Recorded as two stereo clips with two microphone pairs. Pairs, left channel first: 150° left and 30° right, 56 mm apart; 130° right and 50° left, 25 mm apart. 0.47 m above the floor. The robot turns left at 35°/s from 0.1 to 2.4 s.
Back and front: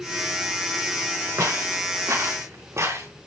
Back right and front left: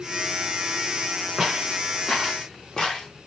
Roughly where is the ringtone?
No ringtone in this recording.